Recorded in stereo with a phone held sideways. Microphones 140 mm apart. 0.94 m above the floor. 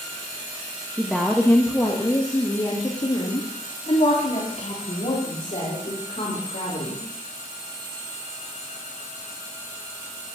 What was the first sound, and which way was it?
A woman speaking, 5° right (ahead or behind).